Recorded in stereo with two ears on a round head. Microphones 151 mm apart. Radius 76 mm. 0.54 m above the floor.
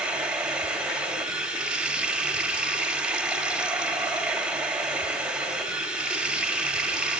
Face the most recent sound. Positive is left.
turn(degrees=-10)  # may be behind; listen again after turning